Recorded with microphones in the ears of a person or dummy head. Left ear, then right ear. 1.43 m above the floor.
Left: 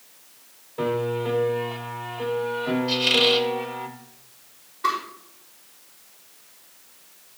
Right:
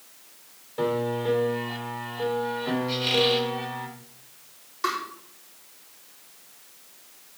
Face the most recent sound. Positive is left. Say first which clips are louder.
# left 3 dB
turn(degrees=-80)